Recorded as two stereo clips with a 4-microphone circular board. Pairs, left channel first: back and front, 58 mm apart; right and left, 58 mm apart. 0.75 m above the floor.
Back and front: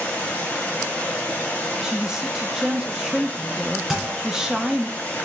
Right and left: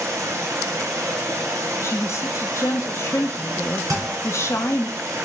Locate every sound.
0.0 s running water: 115° left, 2.5 m
1.8 s a woman speaking: 80° right, 0.7 m
3.9 s a thud: 85° left, 2.5 m